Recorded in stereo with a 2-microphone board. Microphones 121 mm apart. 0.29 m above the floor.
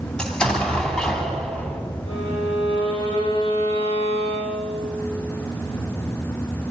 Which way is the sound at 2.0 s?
55° left (ahead or behind).